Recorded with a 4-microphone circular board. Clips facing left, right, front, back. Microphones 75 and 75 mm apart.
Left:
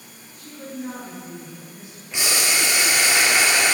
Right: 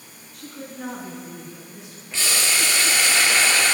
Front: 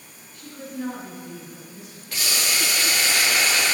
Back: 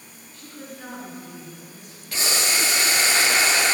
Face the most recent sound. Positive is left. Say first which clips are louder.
# left 1 dB, back 2 dB
turn(degrees=150)